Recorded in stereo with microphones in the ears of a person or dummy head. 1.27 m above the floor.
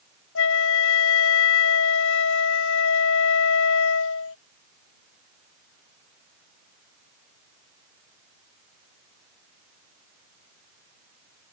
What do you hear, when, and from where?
0.3 s a flute: 65° left (ahead or behind)